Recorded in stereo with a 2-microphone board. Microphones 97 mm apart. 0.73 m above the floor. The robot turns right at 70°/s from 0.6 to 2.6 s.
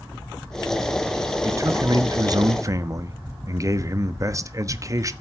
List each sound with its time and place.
1.4 s a man speaking: 135° right, 1.0 m; by 5.1 s 55° right, 1.0 m